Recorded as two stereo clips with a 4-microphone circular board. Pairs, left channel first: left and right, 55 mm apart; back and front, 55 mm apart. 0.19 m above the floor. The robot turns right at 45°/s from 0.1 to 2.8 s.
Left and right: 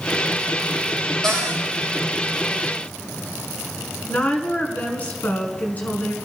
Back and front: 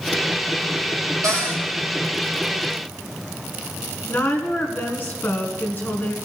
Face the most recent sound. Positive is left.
turn(degrees=140)